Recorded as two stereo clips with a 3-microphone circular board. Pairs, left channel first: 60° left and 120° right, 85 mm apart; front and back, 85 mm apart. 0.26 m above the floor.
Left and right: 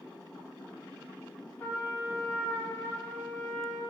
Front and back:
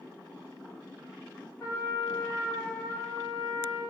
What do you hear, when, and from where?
1.6 s a trumpet: 15° left, 1.3 m